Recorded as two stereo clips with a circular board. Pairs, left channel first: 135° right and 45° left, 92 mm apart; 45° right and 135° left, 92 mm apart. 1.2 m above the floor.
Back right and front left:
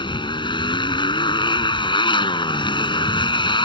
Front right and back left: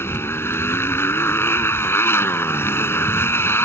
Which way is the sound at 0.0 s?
110° right.